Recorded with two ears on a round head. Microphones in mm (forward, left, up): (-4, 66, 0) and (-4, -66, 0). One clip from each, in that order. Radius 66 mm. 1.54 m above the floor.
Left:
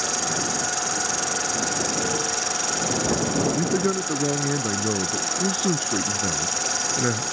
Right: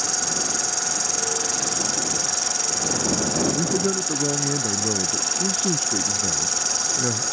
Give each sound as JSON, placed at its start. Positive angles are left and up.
{"t": 0.0, "sound": "an insect", "side_deg": -25}
{"t": 3.5, "sound": "a man speaking", "side_deg": 25}